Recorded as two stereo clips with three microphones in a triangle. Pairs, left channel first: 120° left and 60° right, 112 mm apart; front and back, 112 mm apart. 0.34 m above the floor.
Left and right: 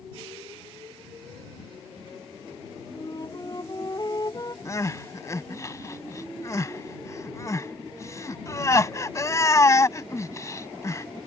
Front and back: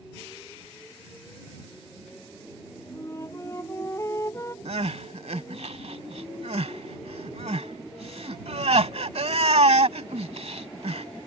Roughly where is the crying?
Behind.